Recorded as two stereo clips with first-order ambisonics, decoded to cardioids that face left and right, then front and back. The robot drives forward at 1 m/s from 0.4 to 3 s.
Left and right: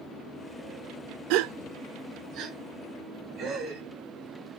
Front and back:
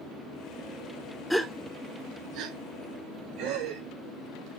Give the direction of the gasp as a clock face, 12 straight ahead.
3 o'clock.